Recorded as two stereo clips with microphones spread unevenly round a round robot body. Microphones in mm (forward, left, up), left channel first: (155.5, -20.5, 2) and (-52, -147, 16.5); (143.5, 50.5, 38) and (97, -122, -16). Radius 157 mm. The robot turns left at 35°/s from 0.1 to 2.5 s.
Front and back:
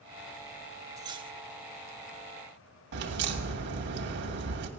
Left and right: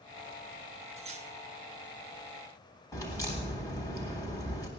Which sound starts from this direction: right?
Cutlery clinking, at 1.0 s.